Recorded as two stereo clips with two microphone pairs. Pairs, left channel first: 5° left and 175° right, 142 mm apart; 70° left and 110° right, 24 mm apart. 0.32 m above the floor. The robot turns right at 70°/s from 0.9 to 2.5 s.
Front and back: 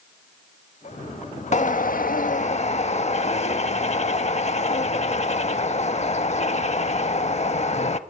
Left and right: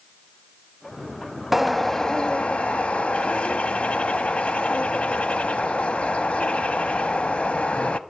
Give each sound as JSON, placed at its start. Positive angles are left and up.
{"t": 1.5, "sound": "a bird", "azimuth_deg": -30, "distance_m": 0.6}